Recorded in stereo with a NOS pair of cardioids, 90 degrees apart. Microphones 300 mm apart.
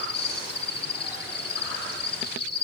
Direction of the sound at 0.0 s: 35° left.